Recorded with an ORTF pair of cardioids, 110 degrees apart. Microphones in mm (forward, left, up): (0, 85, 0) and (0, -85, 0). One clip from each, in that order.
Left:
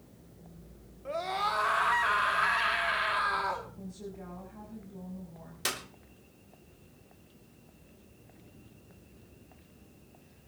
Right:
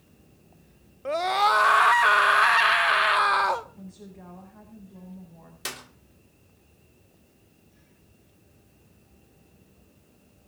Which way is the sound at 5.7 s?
5° left.